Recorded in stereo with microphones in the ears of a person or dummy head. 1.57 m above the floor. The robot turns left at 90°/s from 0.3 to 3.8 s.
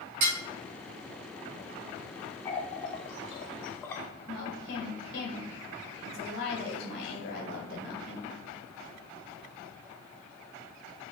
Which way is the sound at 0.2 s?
60° right (ahead or behind).